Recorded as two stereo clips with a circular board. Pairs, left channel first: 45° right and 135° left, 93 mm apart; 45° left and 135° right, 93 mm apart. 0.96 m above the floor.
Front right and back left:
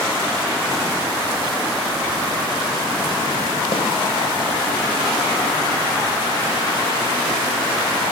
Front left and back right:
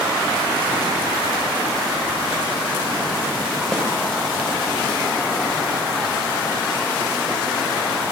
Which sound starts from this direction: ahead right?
A snare drum, at 3.7 s.